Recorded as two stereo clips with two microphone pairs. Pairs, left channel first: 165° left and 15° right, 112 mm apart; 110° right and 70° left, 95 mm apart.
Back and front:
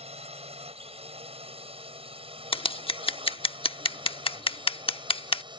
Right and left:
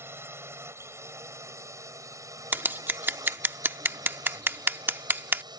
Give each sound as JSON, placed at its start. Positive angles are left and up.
{"t": 0.0, "sound": "a drone", "azimuth_deg": 5}
{"t": 2.5, "sound": "scissors", "azimuth_deg": 135}